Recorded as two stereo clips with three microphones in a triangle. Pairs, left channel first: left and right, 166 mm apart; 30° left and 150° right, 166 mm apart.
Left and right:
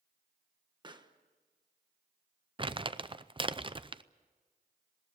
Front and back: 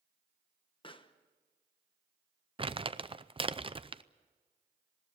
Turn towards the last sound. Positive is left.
turn(degrees=-120)